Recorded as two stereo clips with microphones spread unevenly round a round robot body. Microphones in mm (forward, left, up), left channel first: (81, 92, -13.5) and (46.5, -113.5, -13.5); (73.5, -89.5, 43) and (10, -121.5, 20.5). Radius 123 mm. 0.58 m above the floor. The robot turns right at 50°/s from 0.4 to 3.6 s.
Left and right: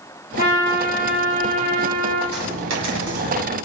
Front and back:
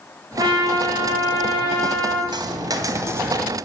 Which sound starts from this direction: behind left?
A trumpet, at 0.4 s.